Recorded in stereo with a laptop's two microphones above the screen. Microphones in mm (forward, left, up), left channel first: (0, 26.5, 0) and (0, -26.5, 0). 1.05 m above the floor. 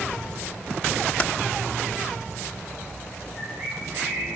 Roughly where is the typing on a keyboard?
Left.